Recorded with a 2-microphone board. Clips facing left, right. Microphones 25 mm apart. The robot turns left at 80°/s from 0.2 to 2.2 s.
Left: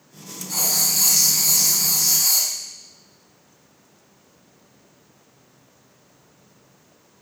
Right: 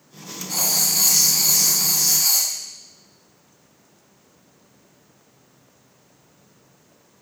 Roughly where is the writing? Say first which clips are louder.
Even; ahead.